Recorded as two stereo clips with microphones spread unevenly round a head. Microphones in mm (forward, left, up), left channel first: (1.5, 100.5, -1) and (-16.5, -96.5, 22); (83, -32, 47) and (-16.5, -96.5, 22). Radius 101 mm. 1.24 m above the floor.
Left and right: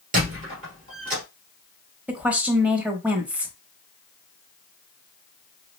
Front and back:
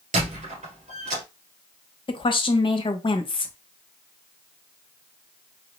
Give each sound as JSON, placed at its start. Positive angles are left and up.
{"t": 0.1, "sound": "a squeak", "azimuth_deg": -135, "distance_m": 2.5}
{"t": 2.1, "sound": "a woman speaking", "azimuth_deg": -10, "distance_m": 1.1}